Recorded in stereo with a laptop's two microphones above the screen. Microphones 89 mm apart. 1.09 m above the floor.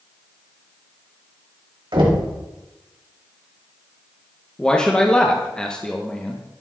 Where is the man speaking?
10° left (ahead or behind), 1.0 m.